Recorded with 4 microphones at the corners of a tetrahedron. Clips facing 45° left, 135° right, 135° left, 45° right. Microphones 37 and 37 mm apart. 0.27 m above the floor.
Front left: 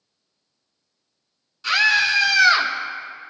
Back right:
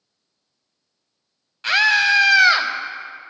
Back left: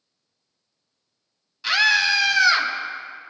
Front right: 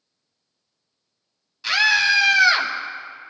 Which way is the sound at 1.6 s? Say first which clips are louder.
Back right 2 dB, front right 1 dB; 140° right.